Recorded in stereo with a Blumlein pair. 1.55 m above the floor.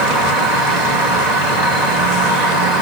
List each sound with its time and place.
0.0 s an insect: 20° right, 1.6 m